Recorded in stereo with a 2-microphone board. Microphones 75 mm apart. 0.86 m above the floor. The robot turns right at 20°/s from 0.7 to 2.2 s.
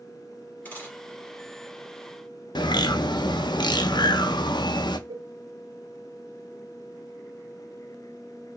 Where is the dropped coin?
20° left (ahead or behind), 4 m; by 1.0 s 25° left (ahead or behind), 4 m.